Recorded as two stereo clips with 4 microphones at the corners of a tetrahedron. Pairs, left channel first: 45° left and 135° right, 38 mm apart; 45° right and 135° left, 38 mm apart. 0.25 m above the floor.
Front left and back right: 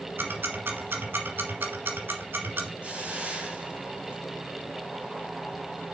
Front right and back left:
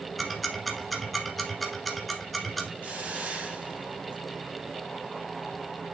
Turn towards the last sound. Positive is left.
turn(degrees=175)